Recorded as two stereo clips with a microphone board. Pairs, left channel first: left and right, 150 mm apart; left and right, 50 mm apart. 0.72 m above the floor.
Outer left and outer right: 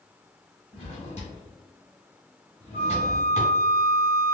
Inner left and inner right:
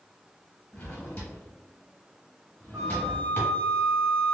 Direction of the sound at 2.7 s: 55° right (ahead or behind).